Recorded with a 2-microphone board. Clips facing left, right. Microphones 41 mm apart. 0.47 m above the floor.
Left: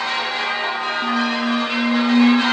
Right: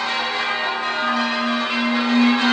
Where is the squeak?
65° left (ahead or behind), 0.8 m.